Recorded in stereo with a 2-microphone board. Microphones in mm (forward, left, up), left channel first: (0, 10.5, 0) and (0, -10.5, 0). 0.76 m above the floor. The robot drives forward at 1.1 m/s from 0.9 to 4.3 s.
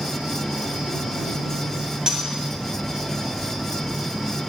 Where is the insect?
65° right (ahead or behind), 3 m; by 4.5 s 35° right (ahead or behind), 5 m.